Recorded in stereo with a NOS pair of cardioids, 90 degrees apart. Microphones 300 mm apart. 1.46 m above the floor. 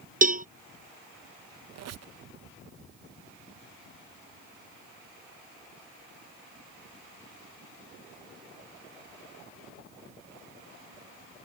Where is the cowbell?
30° right.